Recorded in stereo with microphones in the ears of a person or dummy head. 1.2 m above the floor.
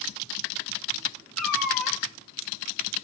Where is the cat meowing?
5° left (ahead or behind), 0.7 m.